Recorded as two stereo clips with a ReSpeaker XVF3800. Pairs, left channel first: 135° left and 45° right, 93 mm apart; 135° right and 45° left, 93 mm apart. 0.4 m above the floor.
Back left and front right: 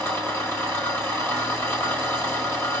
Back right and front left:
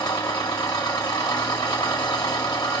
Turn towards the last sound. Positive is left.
turn(degrees=-165)